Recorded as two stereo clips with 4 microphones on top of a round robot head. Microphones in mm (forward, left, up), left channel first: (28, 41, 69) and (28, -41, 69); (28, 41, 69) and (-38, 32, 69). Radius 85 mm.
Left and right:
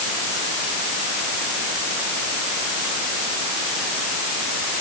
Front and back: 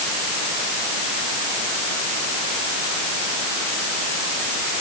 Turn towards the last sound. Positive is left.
No sound to turn to.